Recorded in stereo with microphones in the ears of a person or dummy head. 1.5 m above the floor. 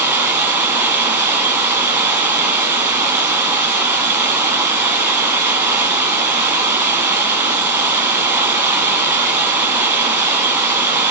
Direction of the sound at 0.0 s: 10° right (ahead or behind).